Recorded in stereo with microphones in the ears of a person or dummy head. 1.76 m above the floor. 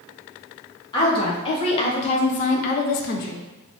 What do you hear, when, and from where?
0.9 s a woman speaking: 30° left (ahead or behind), 1.6 m; by 3.4 s 40° left (ahead or behind), 0.5 m